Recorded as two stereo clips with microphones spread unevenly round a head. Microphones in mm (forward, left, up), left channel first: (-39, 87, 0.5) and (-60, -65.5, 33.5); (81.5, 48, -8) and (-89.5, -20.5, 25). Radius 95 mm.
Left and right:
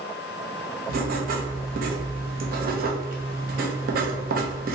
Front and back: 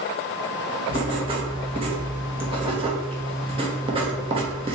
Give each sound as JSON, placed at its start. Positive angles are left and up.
{"t": 0.9, "sound": "writing", "azimuth_deg": -95, "distance_m": 0.7}